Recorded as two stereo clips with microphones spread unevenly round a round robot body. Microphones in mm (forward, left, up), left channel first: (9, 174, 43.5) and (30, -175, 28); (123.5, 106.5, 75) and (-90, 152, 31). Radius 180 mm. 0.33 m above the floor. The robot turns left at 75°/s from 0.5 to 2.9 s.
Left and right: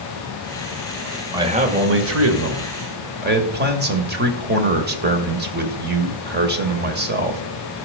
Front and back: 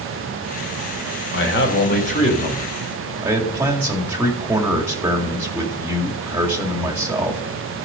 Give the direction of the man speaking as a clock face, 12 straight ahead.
12 o'clock.